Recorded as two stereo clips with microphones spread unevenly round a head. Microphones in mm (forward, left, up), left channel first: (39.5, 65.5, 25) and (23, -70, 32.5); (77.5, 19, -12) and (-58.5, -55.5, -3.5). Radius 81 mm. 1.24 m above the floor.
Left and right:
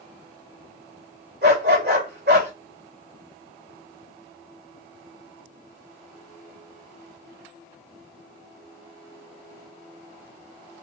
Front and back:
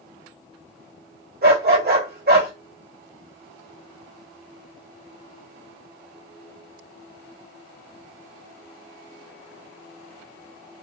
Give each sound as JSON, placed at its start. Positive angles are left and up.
{"t": 1.4, "sound": "a dog barking", "azimuth_deg": -125, "distance_m": 2.5}